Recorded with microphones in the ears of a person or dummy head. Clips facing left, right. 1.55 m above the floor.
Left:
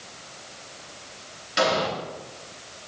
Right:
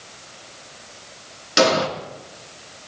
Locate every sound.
1.6 s an explosion: 65° right (ahead or behind), 2.5 m